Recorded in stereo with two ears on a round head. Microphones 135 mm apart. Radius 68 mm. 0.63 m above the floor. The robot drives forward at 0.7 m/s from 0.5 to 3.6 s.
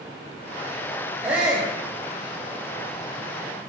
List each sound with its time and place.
1.2 s a shout: 10° right (ahead or behind), 4 m; by 1.7 s 15° right (ahead or behind), 3.5 m